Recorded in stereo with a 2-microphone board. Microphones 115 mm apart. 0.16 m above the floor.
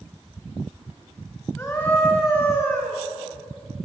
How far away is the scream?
About 2 m.